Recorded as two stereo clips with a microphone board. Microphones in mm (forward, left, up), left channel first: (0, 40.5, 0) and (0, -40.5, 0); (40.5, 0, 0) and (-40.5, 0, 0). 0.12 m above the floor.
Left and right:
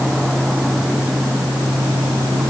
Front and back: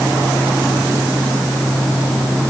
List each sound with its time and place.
Only background noise.